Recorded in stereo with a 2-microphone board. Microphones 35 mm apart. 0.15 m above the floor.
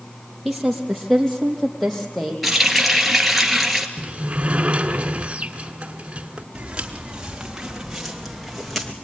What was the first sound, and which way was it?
A woman speaking, 5° right (ahead or behind).